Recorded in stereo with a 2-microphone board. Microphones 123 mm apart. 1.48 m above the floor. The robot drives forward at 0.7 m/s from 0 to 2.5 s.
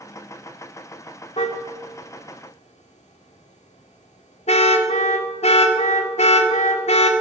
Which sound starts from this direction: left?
A car horn, at 1.4 s.